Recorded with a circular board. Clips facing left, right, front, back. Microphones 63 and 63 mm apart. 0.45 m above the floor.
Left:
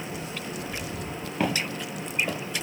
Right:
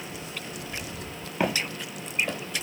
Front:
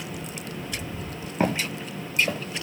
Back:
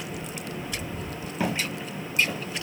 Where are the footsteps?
10° right, 0.6 m; by 2.6 s 15° left, 1.1 m.